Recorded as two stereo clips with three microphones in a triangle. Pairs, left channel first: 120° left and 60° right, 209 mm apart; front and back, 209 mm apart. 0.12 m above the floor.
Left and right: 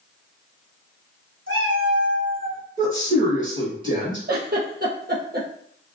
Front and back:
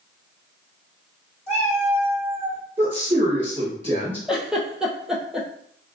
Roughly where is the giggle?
Right.